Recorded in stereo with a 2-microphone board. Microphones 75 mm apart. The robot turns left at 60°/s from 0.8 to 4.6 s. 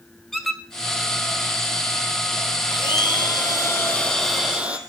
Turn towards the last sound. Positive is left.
turn(degrees=-15)